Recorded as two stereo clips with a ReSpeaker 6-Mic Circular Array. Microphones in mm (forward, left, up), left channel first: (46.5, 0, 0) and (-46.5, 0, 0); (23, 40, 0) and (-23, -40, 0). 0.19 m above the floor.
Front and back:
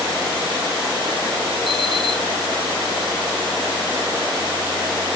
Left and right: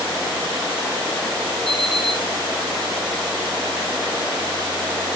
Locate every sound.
1.7 s an alarm clock: 25° right, 4 m